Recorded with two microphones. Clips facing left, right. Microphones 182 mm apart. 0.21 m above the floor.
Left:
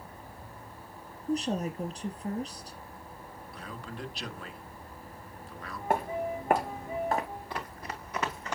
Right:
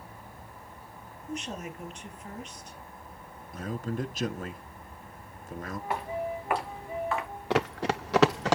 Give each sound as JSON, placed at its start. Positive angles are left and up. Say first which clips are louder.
{"t": 1.3, "sound": "a woman speaking", "louder": "left 7 dB", "side_deg": 35, "distance_m": 3.5}
{"t": 3.5, "sound": "a man speaking", "louder": "right 10 dB", "side_deg": -45, "distance_m": 1.9}
{"t": 5.9, "sound": "footsteps", "louder": "left 3 dB", "side_deg": 45, "distance_m": 6.5}
{"t": 7.5, "sound": "running footsteps", "louder": "right 12 dB", "side_deg": -75, "distance_m": 0.9}